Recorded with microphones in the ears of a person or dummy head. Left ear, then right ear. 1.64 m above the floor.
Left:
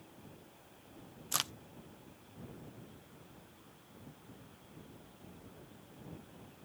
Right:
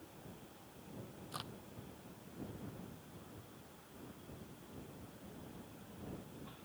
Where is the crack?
55° left (ahead or behind).